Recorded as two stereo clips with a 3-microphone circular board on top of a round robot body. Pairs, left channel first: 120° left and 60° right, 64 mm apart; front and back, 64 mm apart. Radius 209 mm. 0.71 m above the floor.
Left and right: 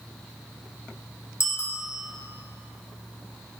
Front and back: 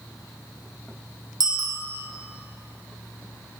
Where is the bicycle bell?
165° left, 2.5 m.